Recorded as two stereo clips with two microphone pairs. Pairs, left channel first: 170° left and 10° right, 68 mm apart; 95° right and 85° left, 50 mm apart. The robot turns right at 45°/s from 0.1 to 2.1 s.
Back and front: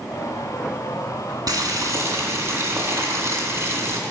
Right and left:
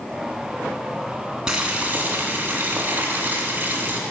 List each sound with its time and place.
1.5 s boiling: 5° left, 1.8 m; by 4.0 s 35° left, 1.8 m